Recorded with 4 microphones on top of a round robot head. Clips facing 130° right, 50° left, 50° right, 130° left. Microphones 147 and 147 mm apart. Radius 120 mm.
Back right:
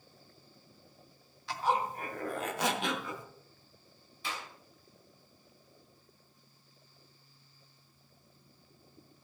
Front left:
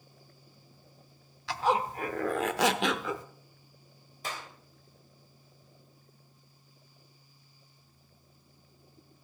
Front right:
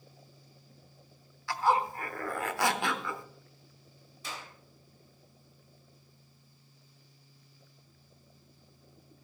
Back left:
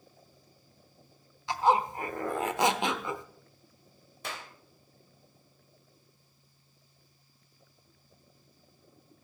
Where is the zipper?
60° left, 0.8 m.